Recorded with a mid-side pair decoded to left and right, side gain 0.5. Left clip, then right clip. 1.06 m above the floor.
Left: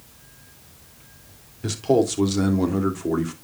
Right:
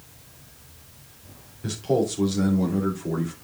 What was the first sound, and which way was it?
A man speaking, 45° left.